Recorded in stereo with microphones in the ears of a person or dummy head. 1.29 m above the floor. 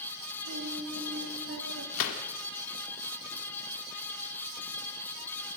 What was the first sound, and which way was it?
Singing, 70° right (ahead or behind).